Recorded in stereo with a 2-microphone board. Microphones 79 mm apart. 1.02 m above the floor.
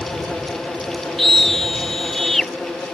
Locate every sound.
1.2 s a scream: 5° left (ahead or behind)